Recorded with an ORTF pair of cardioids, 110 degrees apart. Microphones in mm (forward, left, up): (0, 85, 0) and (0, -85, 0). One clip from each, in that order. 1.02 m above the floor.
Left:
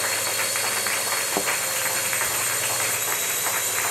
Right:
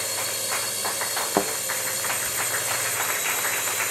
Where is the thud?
25° right.